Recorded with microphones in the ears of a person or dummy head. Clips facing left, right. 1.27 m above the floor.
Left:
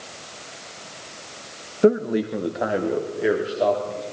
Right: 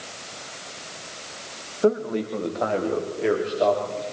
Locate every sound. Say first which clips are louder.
1.8 s a man speaking: left 4 dB; 30° left (ahead or behind), 1.4 m; by 4.0 s 10° left (ahead or behind), 4.5 m